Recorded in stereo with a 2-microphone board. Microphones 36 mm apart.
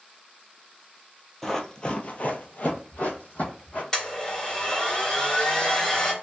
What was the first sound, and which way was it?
Running footsteps, 10° left (ahead or behind).